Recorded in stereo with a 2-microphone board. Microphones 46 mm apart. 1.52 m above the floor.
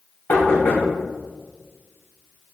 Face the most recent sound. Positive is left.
turn(degrees=50)  # may be behind; listen again after turning